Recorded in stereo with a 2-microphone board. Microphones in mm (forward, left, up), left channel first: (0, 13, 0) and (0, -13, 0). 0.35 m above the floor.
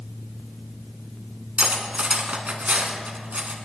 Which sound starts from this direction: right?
Cutlery clinking, at 1.6 s.